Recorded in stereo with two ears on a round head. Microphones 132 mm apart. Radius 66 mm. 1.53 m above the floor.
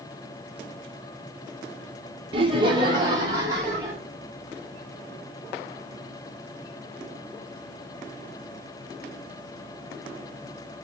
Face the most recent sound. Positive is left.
turn(degrees=-25)  # may be behind; listen again after turning